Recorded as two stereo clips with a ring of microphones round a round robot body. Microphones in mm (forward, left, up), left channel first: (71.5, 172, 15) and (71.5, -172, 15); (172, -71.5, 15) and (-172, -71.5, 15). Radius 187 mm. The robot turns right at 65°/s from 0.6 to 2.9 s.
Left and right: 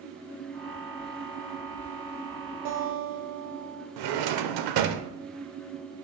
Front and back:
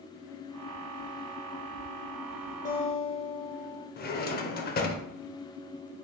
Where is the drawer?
65° right, 0.6 m.